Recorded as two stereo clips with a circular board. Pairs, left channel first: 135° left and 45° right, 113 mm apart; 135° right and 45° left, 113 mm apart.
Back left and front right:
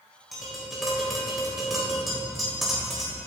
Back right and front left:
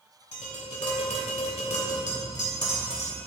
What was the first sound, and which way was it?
Tapping, 135° right.